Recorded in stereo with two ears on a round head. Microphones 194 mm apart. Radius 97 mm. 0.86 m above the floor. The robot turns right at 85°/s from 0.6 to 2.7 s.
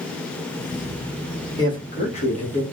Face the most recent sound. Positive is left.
turn(degrees=130)